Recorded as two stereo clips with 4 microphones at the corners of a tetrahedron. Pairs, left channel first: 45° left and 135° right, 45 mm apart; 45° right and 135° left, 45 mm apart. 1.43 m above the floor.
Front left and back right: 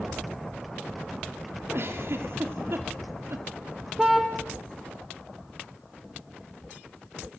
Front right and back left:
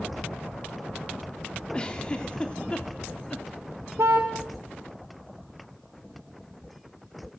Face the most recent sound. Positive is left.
turn(degrees=140)